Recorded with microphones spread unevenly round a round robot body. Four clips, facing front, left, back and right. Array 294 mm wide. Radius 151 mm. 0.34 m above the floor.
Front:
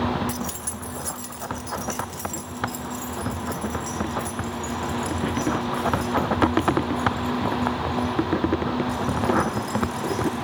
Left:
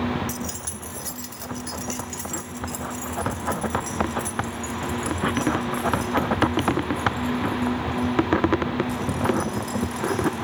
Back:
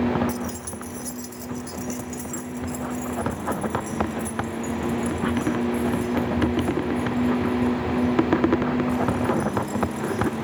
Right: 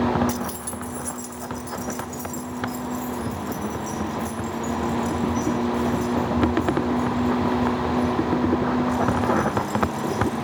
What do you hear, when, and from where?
0.3 s keys jangling: 15° right, 0.9 m; by 10.4 s 80° left, 11.5 m